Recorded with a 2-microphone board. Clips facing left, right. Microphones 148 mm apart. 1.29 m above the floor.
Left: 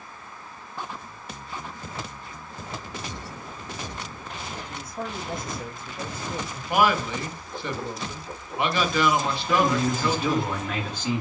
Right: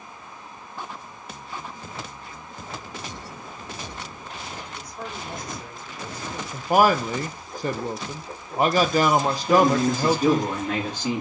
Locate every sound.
4.7 s a man speaking: 60° left (ahead or behind), 1.5 m
6.5 s a man speaking: 45° right (ahead or behind), 0.6 m
9.5 s a man speaking: 40° right (ahead or behind), 2 m